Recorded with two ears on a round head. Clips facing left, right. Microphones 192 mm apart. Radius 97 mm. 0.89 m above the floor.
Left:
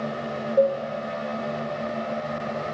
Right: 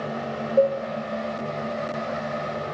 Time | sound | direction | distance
0.6 | a cowbell | 15° right (ahead or behind) | 0.6 m